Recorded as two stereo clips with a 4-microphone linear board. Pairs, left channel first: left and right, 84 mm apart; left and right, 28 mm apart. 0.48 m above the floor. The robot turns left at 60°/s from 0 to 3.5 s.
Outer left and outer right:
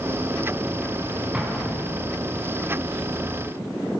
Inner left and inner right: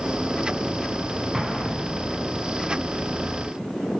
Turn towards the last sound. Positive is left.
turn(degrees=60)